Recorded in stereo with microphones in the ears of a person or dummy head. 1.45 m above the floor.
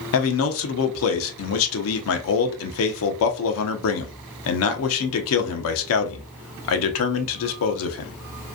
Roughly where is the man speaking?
Left.